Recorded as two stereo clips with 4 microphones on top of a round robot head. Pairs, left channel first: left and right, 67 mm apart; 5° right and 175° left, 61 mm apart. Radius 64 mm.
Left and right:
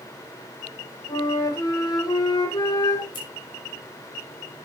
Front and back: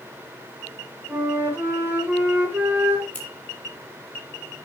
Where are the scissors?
65° left, 5 m.